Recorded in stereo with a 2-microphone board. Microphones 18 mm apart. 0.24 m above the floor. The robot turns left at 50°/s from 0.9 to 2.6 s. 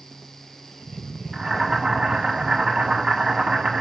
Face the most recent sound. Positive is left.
turn(degrees=-80)